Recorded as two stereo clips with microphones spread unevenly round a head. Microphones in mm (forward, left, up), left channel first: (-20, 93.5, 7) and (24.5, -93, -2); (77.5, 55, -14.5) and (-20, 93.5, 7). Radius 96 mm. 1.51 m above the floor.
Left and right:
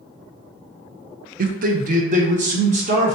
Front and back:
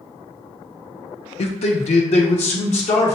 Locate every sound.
1.4 s a man speaking: 35° right, 0.6 m; by 3.2 s 20° right, 1.6 m